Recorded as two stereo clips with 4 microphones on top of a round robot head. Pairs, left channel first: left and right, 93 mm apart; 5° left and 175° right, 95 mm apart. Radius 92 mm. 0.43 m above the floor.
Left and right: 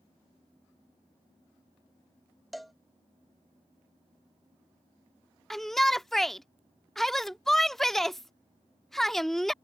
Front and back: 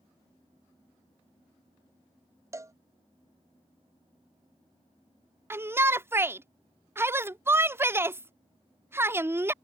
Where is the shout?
175° left.